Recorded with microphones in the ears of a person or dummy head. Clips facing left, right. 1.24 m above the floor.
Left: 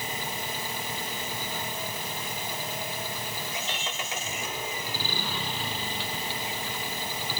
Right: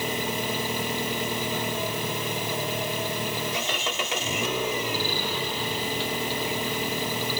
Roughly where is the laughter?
No laughter in this recording.